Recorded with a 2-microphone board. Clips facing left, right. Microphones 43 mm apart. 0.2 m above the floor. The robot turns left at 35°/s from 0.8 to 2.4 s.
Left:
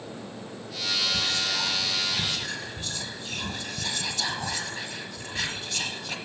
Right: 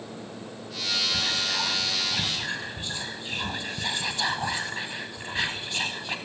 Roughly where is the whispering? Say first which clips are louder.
Even; centre.